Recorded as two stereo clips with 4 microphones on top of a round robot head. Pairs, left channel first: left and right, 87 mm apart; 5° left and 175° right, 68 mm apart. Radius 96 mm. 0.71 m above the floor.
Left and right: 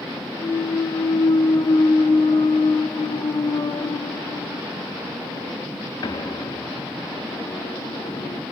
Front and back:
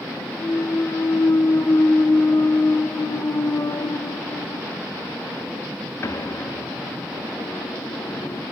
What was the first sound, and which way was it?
A clunk, 50° left.